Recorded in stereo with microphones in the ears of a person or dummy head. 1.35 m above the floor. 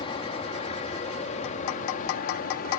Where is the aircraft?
30° left (ahead or behind); by 2.8 s 55° left (ahead or behind).